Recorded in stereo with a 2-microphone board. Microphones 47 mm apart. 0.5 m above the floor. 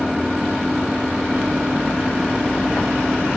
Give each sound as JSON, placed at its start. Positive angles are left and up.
{"t": 0.0, "sound": "an engine running", "side_deg": -5}